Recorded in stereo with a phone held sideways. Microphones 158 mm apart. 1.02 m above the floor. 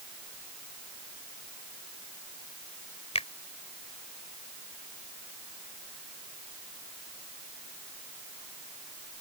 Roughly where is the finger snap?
Left.